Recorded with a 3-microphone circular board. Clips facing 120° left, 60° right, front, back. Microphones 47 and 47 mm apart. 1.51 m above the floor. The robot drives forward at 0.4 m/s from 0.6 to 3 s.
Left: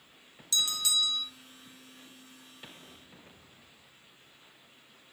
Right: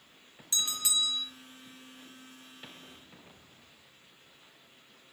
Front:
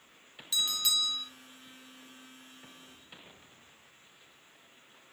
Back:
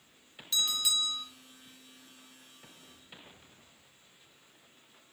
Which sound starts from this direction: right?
A bell, at 0.5 s.